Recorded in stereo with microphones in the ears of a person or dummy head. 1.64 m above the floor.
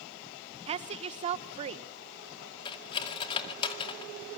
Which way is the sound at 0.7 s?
40° right (ahead or behind).